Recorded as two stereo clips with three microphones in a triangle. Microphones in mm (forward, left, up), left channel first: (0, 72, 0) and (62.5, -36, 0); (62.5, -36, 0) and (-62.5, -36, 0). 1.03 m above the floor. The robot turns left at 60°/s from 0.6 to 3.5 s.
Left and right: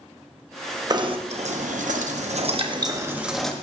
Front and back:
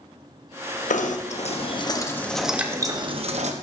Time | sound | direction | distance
0.9 | knocking | straight ahead | 0.8 m